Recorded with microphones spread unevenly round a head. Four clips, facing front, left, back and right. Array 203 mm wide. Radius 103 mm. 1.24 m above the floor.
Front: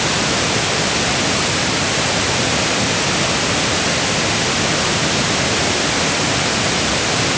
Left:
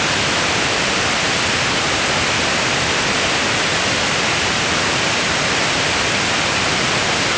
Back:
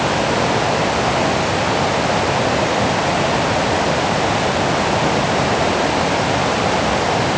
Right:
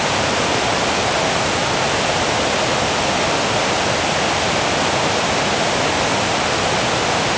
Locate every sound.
Only background noise.